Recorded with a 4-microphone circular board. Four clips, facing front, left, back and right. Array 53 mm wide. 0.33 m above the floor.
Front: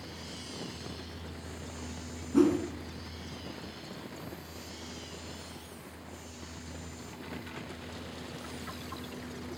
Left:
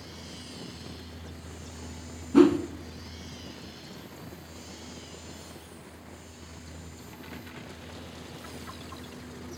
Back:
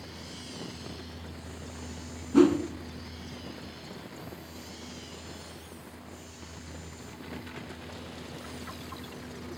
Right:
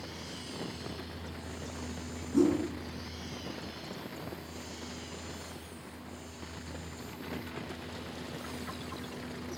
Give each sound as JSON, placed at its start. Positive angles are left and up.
{"t": 2.3, "sound": "a whoosh", "azimuth_deg": 110, "distance_m": 1.9}